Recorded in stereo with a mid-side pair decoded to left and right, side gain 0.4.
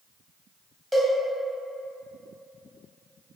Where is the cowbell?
Straight ahead, 1.2 m.